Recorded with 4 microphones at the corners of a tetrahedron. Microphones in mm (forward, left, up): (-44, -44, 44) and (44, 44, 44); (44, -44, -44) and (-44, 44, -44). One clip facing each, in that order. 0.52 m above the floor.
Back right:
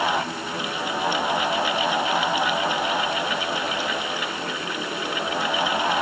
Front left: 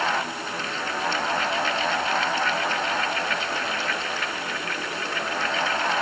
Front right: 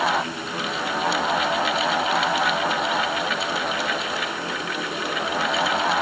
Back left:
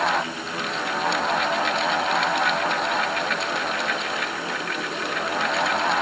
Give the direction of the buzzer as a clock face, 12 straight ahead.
No buzzer in this recording.